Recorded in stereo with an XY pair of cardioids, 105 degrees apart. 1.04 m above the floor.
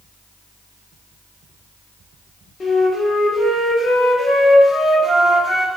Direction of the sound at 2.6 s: 45° left.